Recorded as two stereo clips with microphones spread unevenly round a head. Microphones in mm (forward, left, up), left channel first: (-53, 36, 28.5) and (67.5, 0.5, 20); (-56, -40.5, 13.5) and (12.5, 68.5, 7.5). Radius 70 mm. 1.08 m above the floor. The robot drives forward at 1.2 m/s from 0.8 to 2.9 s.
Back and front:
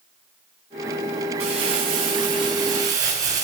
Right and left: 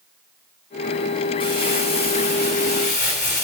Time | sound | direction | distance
1.4 | crumpling | 65° right | 5.5 m